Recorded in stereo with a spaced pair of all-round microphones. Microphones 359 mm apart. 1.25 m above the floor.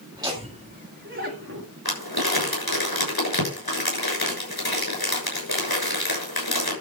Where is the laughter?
10° right (ahead or behind), 2 m; by 1.7 s 45° right (ahead or behind), 2.0 m.